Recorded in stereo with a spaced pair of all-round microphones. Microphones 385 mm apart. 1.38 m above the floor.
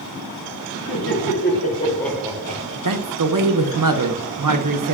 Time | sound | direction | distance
0.9 | laughter | 40° left (ahead or behind) | 1.4 m
2.9 | a man speaking | 55° right (ahead or behind) | 0.6 m